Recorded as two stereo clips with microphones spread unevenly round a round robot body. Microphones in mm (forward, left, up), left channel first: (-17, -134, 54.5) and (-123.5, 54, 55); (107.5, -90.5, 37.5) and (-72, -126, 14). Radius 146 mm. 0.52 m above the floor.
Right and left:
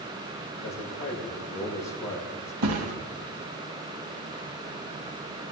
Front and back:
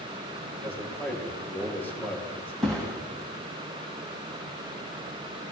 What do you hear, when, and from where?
0.6 s a man speaking: 70° right, 7.5 m
2.6 s a thud: 100° left, 2.5 m